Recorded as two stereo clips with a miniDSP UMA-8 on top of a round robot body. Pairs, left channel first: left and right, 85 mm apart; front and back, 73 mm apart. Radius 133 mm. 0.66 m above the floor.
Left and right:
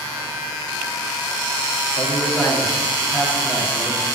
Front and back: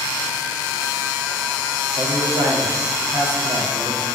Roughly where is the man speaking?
Behind.